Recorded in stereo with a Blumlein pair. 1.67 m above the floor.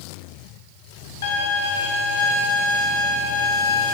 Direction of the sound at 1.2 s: 65° left.